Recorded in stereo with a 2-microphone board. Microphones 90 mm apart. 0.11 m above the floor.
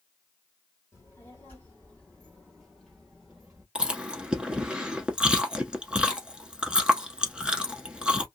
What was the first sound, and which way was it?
A child speaking, 30° left (ahead or behind).